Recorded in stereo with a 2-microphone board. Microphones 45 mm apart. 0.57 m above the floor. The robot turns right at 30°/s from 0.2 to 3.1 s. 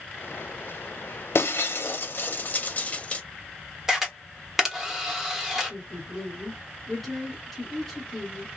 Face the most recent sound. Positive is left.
turn(degrees=0)  # may be behind; listen again after turning